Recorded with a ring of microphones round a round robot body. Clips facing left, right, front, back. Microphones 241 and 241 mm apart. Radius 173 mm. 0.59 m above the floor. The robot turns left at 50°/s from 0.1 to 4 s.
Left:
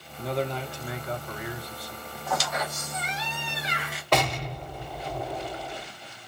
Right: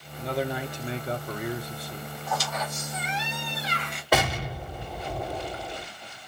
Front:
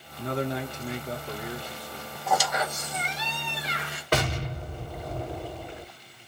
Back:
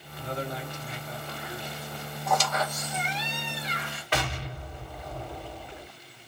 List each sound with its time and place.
0.2 s a man speaking: 5° left, 1.1 m; by 2.1 s 90° right, 1.1 m
2.3 s a squeak: 85° left, 1.6 m; by 4.0 s straight ahead, 1.6 m
4.1 s an explosion: 10° right, 1.6 m